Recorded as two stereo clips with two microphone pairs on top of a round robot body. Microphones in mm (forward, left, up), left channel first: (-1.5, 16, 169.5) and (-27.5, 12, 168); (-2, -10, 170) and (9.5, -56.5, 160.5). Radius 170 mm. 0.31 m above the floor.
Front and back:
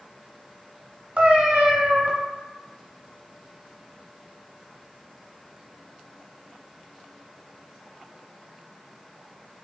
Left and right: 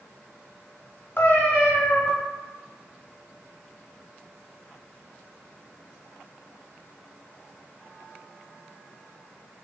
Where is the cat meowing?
145° left, 0.9 m.